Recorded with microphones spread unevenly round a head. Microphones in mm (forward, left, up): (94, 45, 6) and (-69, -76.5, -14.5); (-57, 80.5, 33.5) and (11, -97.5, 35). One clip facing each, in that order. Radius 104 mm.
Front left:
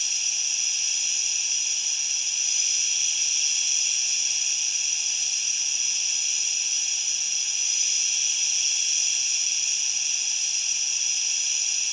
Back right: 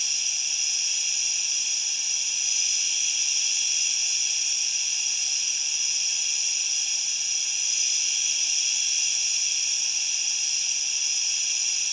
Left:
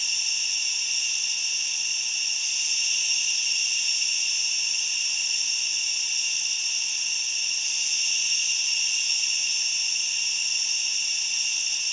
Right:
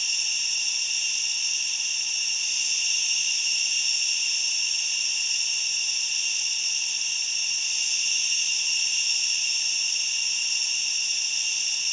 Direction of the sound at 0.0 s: 55° right.